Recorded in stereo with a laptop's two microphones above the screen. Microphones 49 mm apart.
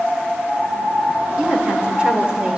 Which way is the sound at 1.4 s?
25° right (ahead or behind).